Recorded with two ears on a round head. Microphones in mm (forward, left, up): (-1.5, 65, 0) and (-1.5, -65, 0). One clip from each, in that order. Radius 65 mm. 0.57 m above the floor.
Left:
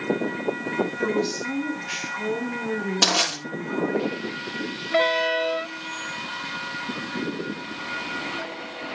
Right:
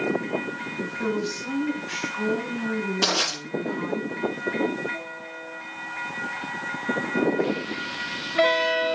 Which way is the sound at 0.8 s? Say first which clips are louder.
Left 3 dB; 70° left (ahead or behind).